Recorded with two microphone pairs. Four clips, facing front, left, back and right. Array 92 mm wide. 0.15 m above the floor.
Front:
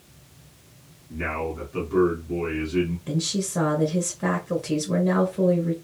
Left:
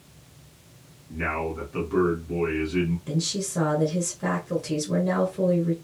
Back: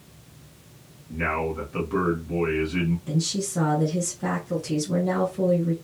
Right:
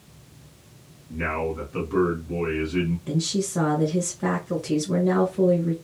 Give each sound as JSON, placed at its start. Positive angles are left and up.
{"t": 1.1, "sound": "a man speaking", "azimuth_deg": -155, "distance_m": 1.2}
{"t": 3.1, "sound": "a woman speaking", "azimuth_deg": -55, "distance_m": 1.2}